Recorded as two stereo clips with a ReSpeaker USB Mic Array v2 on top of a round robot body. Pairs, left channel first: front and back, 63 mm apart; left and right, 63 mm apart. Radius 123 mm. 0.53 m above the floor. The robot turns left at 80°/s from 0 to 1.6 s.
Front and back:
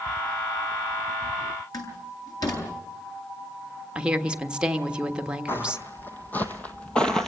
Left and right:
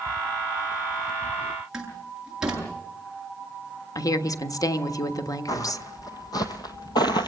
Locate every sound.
1.7 s a door slam: 10° right, 8.5 m
4.0 s a woman speaking: 105° left, 1.6 m
5.5 s footsteps: 60° left, 1.9 m; by 7.3 s 85° left, 0.9 m